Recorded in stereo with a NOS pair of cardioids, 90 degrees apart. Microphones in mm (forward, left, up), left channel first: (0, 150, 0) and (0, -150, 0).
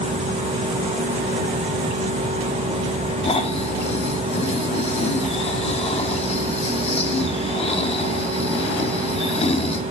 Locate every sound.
0.0 s a machine running: 20° right, 3 m
3.2 s snoring: 20° left, 1.5 m